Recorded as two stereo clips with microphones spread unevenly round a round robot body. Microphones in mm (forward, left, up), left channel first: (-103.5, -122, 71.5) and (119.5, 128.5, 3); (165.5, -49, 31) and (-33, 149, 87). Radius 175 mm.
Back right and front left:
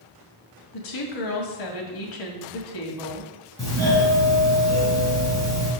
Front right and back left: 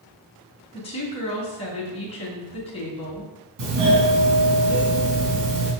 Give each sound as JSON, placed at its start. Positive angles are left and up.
{"t": 0.7, "sound": "a woman speaking", "azimuth_deg": -110, "distance_m": 2.5}
{"t": 3.6, "sound": "a doorbell", "azimuth_deg": 145, "distance_m": 5.0}